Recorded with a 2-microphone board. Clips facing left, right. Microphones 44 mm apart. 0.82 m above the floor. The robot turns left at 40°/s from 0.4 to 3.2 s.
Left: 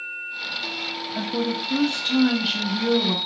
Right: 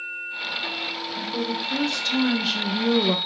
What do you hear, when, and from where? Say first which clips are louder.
1.1 s a woman speaking: left 3 dB; 60° left, 0.9 m; by 3.2 s 20° right, 0.9 m